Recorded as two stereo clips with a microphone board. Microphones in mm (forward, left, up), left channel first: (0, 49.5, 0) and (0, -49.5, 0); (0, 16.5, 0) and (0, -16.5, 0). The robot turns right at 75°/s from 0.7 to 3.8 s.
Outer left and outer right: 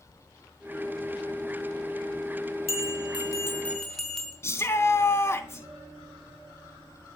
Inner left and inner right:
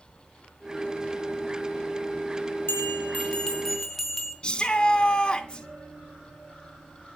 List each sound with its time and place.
2.7 s a bell: 95° left, 4.5 m; by 4.3 s 175° left, 4.5 m
4.4 s a shout: 30° left (ahead or behind), 3.5 m